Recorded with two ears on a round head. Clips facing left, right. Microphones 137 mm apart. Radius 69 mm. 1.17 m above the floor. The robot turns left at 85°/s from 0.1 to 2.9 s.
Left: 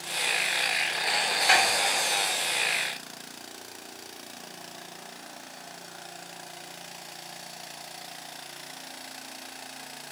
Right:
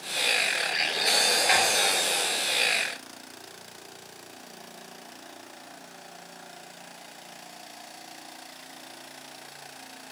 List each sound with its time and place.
1.5 s a snare drum: centre (ahead or behind), 2 m; by 1.6 s 10° left (ahead or behind), 2 m